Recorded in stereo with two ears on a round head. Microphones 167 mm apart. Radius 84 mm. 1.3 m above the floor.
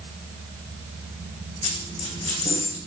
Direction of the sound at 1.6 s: 30° left (ahead or behind).